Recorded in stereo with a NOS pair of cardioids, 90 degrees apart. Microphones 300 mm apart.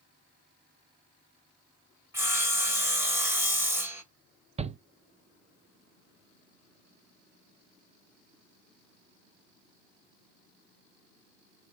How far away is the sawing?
About 1.6 m.